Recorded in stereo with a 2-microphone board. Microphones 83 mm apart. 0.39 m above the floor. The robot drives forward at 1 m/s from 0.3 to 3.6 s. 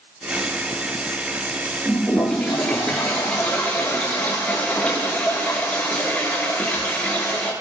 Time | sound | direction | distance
1.9 | a toilet flushing | 10° left (ahead or behind) | 6.5 m